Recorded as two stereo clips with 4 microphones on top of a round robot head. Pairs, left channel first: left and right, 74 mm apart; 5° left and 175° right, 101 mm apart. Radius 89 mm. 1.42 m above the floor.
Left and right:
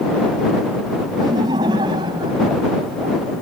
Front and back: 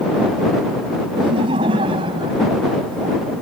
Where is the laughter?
130° right; by 3.3 s 120° right.